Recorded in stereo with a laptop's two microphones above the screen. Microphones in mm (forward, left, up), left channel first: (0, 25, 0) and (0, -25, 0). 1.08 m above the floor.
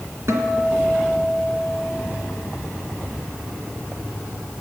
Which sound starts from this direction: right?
A guitar, at 0.3 s.